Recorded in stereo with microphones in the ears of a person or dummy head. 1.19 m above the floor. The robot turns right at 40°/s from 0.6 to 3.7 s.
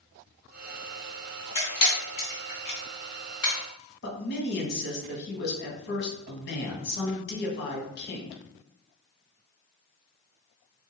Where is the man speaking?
60° left (ahead or behind), 1.3 m.